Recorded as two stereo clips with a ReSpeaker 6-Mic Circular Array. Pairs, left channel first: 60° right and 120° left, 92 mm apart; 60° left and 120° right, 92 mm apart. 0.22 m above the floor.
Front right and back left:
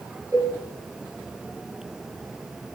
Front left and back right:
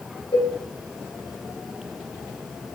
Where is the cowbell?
85° left, 2.5 m.